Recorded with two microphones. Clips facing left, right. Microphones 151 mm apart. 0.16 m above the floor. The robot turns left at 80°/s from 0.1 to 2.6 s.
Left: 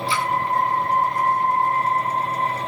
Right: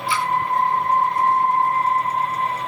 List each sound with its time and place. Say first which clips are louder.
0.1 s a splash: right 3 dB; 25° left (ahead or behind), 7 m; by 0.3 s 40° left (ahead or behind), 7 m